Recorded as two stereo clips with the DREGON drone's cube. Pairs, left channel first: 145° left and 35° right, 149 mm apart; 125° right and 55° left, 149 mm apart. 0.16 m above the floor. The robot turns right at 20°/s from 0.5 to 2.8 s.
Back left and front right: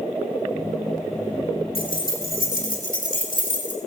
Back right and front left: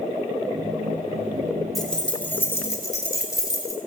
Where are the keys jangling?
145° left, 4.5 m; by 3.8 s 170° left, 4.5 m.